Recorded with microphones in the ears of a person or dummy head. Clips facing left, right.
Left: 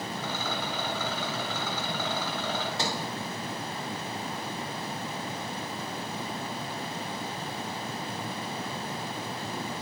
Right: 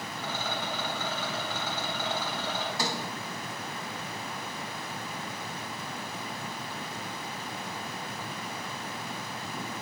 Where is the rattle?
65° left (ahead or behind), 3.5 m.